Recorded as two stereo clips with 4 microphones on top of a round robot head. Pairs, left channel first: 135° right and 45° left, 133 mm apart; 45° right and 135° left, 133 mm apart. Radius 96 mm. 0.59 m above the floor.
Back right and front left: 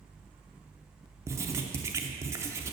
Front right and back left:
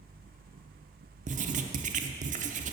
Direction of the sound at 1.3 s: 115° left.